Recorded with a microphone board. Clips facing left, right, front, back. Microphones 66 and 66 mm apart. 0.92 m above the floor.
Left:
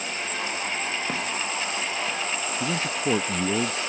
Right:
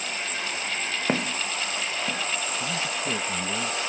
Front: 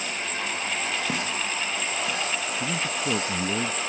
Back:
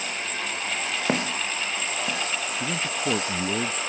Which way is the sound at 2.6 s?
105° left.